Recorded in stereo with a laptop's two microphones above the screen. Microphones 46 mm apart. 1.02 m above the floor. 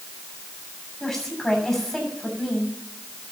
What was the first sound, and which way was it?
A woman speaking, 15° left (ahead or behind).